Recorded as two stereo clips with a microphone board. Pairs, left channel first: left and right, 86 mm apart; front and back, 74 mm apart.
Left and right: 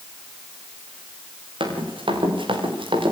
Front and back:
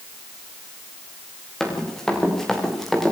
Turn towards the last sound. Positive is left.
turn(degrees=-85)